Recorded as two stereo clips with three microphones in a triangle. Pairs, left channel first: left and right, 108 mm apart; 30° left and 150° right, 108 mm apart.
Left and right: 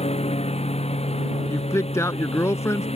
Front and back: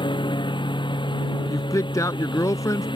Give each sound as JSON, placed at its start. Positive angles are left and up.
{"t": 0.0, "sound": "a lawn mower", "azimuth_deg": 75}
{"t": 1.5, "sound": "a woman speaking", "azimuth_deg": 55}